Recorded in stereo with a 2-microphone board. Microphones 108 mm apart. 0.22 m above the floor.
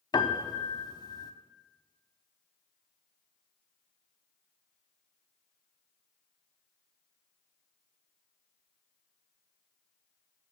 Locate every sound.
0.1 s a piano: 40° left (ahead or behind), 0.6 m